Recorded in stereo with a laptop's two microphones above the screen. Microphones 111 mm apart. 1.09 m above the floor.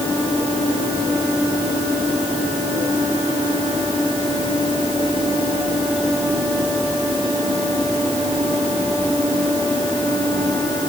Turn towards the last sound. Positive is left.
No sound to turn to.